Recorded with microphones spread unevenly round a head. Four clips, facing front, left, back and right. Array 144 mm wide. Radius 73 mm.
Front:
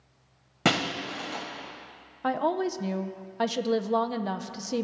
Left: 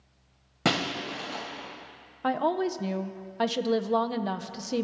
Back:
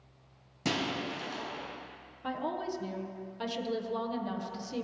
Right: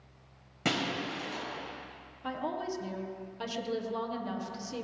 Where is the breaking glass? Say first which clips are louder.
Left 4 dB, front 5 dB; 30° left, 2.5 m.